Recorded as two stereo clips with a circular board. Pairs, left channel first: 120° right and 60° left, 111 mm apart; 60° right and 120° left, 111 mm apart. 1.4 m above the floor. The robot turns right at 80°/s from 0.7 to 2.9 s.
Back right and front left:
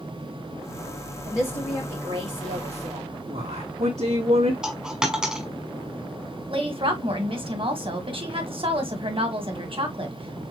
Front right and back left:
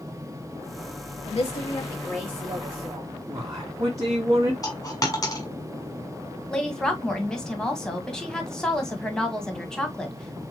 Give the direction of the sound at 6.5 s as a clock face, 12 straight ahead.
11 o'clock.